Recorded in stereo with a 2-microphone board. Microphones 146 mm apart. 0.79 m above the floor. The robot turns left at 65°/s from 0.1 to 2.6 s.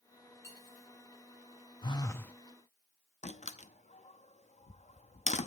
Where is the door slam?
55° left (ahead or behind), 0.7 m.